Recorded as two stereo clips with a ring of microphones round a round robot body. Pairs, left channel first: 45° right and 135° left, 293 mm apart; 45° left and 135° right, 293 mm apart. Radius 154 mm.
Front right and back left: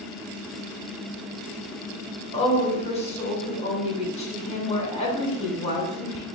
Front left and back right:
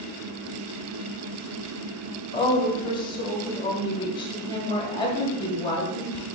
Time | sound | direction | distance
2.3 | a woman speaking | 10° right | 1.1 m